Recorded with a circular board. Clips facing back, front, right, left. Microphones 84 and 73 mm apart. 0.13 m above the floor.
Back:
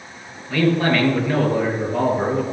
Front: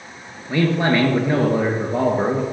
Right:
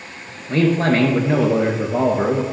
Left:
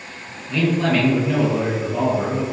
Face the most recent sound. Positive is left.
turn(degrees=-60)